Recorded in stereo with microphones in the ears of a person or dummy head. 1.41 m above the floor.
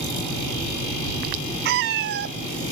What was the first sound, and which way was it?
A cat meowing, 60° right (ahead or behind).